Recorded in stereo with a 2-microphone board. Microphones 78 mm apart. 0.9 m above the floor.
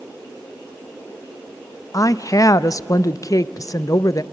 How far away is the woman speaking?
About 0.6 m.